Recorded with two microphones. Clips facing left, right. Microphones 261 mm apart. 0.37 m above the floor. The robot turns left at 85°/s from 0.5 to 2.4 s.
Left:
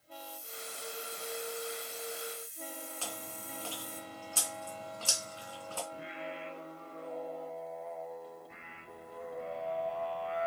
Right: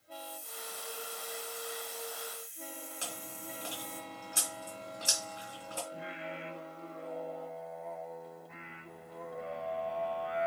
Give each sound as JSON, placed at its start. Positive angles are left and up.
{"t": 0.1, "sound": "a hiss", "azimuth_deg": -70, "distance_m": 0.8}
{"t": 3.0, "sound": "chewing", "side_deg": -20, "distance_m": 3.0}
{"t": 5.9, "sound": "singing", "side_deg": 0, "distance_m": 2.0}